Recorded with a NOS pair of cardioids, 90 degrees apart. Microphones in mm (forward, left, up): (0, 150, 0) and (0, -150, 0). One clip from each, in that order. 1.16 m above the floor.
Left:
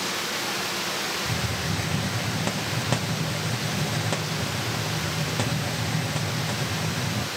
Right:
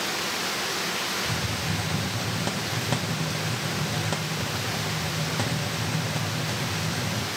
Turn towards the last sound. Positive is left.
turn(degrees=5)